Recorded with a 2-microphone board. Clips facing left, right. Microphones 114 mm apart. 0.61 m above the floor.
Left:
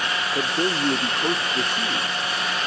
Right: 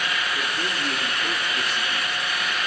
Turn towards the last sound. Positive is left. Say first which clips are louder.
# left 5 dB
turn(degrees=45)  # may be behind; listen again after turning